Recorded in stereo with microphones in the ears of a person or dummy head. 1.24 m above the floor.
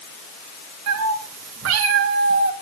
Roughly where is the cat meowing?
Right.